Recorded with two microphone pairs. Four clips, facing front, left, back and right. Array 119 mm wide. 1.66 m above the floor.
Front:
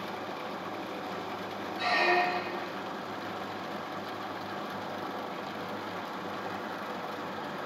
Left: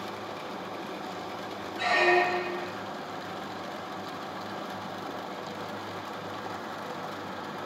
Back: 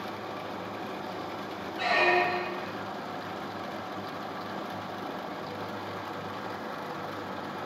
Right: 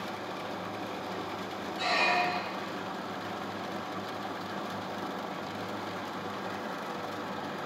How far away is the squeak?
About 0.9 m.